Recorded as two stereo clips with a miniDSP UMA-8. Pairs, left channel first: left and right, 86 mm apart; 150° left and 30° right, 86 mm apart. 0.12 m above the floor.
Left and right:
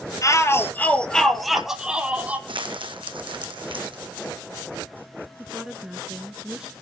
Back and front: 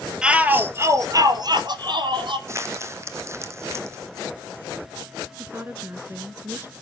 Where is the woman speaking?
15° right, 1.5 m.